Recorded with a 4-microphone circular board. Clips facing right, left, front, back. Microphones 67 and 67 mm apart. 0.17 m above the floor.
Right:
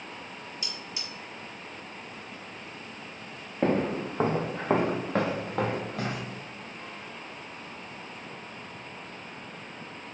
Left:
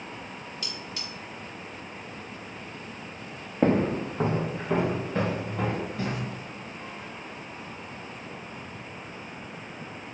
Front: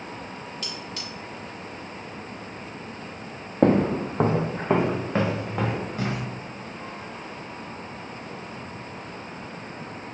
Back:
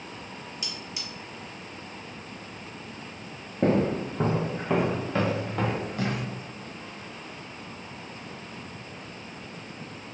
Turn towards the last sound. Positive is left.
turn(degrees=-75)